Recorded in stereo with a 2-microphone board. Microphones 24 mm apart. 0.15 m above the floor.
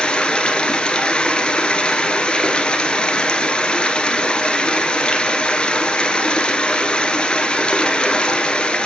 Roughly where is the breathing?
I don't hear breathing.